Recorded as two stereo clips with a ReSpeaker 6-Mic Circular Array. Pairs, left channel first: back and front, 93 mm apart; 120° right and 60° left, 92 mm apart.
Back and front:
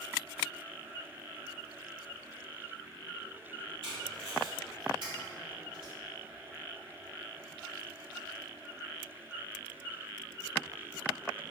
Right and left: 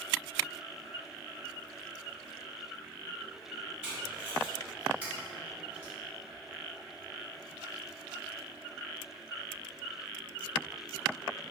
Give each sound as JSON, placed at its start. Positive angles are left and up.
{"t": 3.8, "sound": "tape being pulled", "azimuth_deg": -15, "distance_m": 1.2}